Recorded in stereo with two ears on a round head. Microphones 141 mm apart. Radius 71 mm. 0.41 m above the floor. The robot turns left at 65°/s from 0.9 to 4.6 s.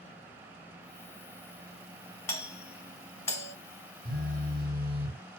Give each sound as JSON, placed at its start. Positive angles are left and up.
{"t": 2.3, "sound": "a doorbell", "side_deg": 20, "distance_m": 1.3}
{"t": 4.0, "sound": "a phone buzzing", "azimuth_deg": -110, "distance_m": 0.9}